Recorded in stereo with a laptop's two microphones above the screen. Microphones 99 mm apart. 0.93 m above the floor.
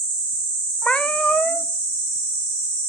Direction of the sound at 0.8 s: 10° left (ahead or behind).